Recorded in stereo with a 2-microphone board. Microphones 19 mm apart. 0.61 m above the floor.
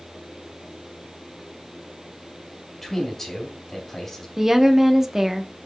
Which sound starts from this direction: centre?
A man speaking, at 2.8 s.